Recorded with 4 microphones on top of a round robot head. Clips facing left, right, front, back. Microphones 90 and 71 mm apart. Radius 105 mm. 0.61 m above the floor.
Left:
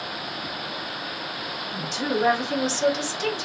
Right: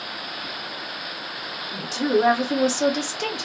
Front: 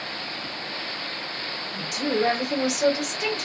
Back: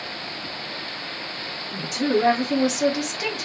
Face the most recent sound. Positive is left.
turn(degrees=-100)